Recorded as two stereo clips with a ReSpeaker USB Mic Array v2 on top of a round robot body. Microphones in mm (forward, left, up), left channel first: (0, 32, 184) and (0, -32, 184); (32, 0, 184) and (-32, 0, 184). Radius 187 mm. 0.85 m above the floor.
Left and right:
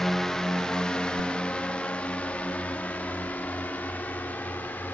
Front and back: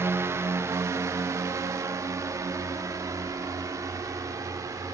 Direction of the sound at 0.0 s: 175° left.